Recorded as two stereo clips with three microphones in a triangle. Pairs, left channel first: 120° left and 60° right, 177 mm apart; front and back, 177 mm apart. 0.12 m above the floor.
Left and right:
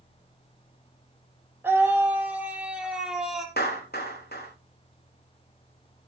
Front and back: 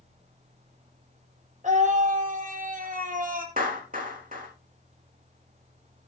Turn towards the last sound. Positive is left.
turn(degrees=145)